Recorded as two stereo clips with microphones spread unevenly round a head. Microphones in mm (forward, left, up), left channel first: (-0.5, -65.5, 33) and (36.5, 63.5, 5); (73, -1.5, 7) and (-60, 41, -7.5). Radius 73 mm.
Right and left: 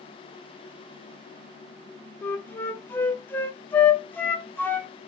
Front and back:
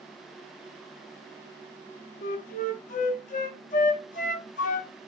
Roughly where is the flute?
Ahead right.